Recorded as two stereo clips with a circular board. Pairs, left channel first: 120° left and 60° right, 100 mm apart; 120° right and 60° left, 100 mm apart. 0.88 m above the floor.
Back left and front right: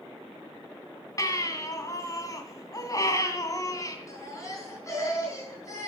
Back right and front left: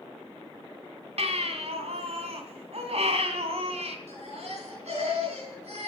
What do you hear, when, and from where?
1.2 s a baby crying: 65° left, 2 m
4.1 s a baby crying: 60° left, 5.5 m